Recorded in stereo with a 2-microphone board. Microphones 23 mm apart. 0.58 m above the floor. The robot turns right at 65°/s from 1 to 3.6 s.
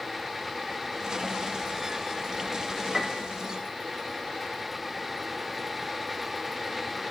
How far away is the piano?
About 1.2 m.